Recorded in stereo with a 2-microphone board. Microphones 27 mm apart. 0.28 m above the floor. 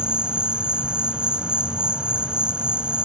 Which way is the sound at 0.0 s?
40° right (ahead or behind).